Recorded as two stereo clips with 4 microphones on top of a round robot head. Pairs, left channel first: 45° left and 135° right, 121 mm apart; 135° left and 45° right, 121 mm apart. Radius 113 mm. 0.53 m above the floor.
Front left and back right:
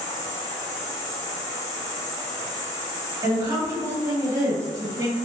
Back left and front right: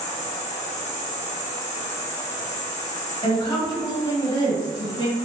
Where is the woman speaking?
Straight behind, 1.8 m.